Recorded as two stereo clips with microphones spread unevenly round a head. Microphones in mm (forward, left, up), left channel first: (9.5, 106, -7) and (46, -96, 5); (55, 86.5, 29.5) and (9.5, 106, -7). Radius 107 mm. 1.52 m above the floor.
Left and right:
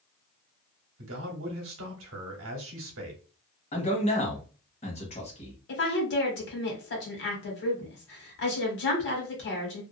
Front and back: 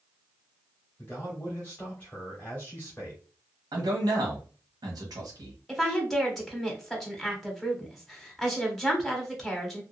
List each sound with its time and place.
1.0 s a man speaking: 115° right, 1.0 m
3.7 s a man speaking: 165° left, 1.1 m
5.7 s a woman speaking: 70° left, 1.6 m